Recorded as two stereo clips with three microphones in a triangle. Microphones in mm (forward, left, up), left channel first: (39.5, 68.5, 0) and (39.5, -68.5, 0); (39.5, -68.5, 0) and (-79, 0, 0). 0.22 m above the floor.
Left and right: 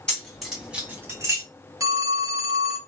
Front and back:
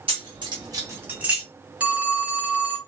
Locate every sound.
0.1 s keys jangling: 170° left, 1.4 m; by 1.4 s 130° right, 1.2 m
1.8 s a phone ringing: 135° right, 1.1 m